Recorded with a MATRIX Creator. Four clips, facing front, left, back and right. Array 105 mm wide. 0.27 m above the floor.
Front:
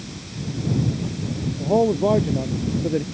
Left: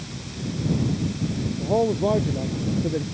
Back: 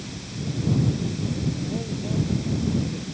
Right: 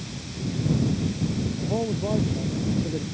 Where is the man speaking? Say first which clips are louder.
Left 9 dB, front 12 dB; 25° left; by 3.0 s 20° left.